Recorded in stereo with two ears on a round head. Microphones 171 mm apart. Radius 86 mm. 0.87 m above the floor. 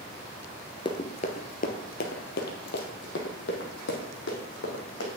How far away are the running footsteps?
About 0.9 m.